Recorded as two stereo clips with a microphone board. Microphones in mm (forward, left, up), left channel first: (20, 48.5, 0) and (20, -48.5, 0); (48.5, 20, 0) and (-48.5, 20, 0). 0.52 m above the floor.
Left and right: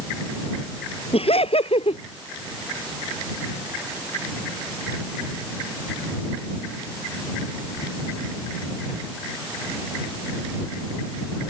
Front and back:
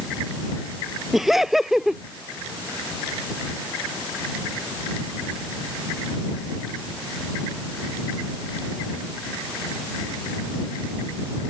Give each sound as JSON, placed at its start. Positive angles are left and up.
{"t": 1.1, "sound": "laughter", "azimuth_deg": 90}